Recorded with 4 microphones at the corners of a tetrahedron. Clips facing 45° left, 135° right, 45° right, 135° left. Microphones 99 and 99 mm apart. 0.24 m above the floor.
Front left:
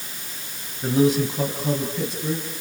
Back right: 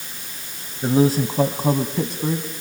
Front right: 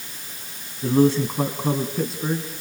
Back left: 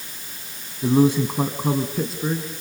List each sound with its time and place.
0.8 s a man speaking: 170° right, 1.6 m; by 2.6 s 130° right, 3 m